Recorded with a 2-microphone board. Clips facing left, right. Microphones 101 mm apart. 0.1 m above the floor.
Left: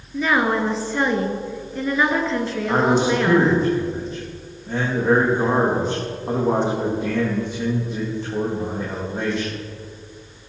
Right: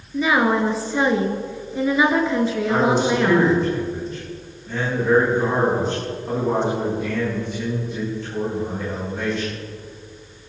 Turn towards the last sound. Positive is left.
turn(degrees=30)  # may be behind; listen again after turning